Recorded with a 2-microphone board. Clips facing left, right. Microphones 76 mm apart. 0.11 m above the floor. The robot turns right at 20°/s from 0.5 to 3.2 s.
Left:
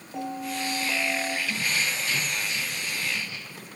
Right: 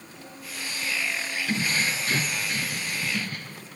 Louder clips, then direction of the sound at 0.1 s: Left 11 dB; 75° left (ahead or behind).